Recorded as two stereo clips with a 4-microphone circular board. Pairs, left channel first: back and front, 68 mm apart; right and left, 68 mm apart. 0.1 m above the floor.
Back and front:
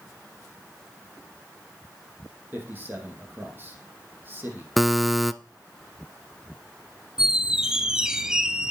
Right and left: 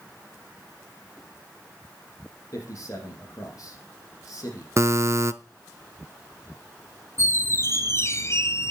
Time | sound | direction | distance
2.5 | a man speaking | 60° right | 4.5 m
4.8 | a buzzer | 90° left | 0.5 m
7.2 | a squeak | 75° right | 0.9 m